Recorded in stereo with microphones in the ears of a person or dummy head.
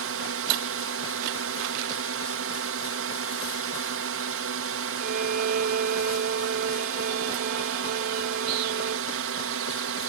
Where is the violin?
55° right (ahead or behind).